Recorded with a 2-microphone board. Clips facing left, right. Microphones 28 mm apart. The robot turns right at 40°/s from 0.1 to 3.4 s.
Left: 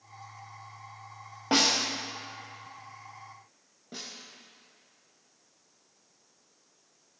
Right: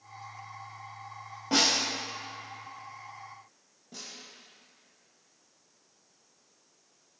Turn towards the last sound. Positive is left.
turn(degrees=30)  # may be behind; listen again after turning